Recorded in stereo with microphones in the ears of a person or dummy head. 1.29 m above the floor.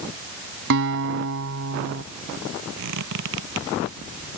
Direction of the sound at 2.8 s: 65° right (ahead or behind).